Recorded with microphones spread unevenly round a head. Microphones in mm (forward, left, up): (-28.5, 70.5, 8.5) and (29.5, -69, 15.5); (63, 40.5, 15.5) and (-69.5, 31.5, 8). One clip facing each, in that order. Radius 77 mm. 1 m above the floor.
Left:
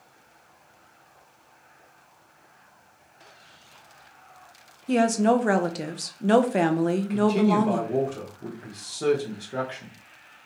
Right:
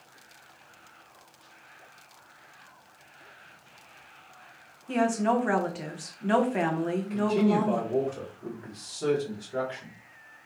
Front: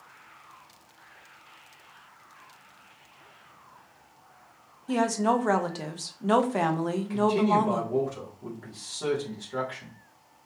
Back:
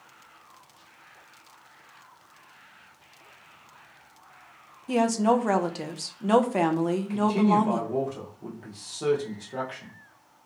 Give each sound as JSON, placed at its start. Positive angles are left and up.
{"t": 4.9, "sound": "a woman speaking", "azimuth_deg": 110, "distance_m": 0.5}
{"t": 7.1, "sound": "a man speaking", "azimuth_deg": 110, "distance_m": 1.1}